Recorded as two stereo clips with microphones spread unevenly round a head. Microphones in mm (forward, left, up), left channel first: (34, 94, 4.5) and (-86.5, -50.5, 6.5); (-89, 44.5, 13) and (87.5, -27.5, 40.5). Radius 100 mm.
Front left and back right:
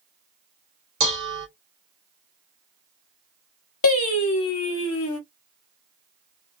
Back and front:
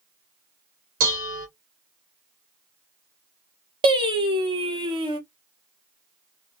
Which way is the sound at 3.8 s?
45° left.